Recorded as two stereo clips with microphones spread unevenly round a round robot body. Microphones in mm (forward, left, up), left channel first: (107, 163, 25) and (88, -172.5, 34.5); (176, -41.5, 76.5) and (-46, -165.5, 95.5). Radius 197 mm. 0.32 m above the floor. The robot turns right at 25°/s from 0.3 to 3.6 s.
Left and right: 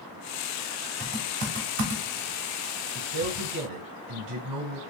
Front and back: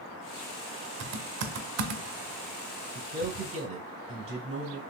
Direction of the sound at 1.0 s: 165° right.